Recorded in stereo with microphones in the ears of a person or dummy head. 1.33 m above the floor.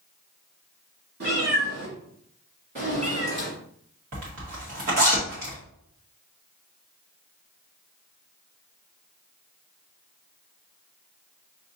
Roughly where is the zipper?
Right.